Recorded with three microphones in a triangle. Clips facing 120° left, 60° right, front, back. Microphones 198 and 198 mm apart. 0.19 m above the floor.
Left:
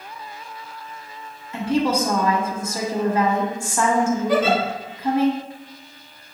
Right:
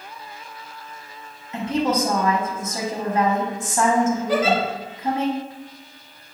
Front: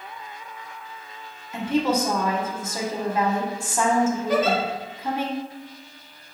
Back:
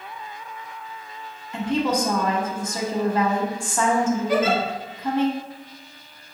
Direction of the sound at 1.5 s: 65° right.